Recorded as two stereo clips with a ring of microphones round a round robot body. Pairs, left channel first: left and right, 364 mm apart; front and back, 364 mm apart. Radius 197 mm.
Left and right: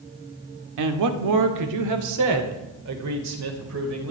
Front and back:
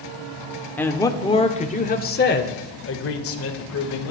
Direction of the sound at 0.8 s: 85° right.